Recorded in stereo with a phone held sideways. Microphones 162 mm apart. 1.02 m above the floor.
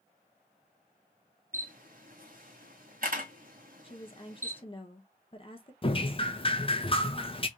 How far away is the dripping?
About 0.7 m.